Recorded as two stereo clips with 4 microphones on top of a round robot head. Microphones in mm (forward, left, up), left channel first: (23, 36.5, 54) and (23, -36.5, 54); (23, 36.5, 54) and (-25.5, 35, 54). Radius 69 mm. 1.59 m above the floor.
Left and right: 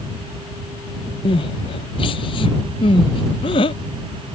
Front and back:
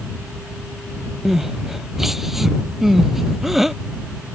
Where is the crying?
95° left.